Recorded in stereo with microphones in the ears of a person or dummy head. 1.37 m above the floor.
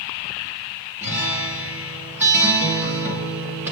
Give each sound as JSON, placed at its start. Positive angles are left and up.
{"t": 1.0, "sound": "a guitar", "side_deg": -10, "distance_m": 3.5}